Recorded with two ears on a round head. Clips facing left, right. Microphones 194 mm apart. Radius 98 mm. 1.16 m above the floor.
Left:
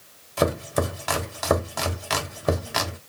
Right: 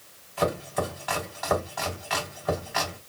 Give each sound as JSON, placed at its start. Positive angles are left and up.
{"t": 0.4, "sound": "chopping", "side_deg": 55, "distance_m": 1.0}